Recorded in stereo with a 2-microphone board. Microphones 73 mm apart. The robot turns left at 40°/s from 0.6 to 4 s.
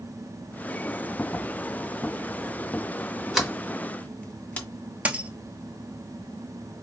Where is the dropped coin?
20° right (ahead or behind), 0.9 m.